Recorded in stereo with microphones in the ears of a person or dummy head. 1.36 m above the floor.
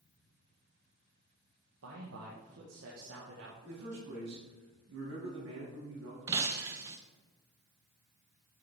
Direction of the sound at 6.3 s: 15° right (ahead or behind).